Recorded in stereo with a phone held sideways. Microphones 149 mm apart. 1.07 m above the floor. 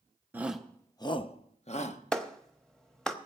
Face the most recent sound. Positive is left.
turn(degrees=5)  # may be behind; listen again after turning